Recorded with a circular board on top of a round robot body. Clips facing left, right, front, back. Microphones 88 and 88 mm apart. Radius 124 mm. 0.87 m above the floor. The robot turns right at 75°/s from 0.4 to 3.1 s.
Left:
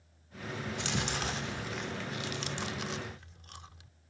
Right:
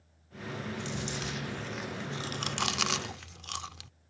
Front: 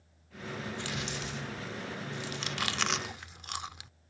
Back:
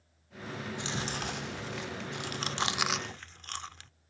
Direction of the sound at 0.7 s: 100° left.